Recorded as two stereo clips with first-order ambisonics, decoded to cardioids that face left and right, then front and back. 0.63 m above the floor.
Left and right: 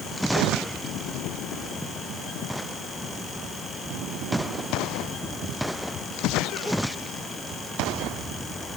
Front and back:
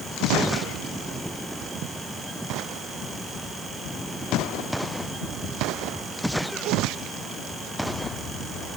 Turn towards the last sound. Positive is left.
No sound to turn to.